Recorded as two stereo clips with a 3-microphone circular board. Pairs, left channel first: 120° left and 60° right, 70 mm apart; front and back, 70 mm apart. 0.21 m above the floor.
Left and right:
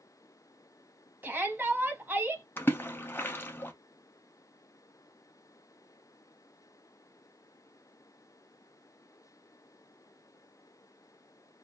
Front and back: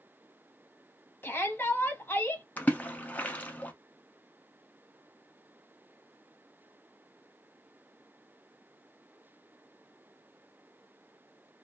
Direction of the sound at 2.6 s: 60° left.